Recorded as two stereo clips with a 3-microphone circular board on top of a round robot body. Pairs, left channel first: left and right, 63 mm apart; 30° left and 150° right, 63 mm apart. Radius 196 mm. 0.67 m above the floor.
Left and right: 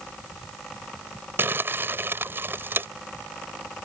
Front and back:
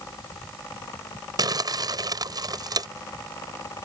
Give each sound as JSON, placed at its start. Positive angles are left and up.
{"t": 1.4, "sound": "crumpling", "azimuth_deg": -145}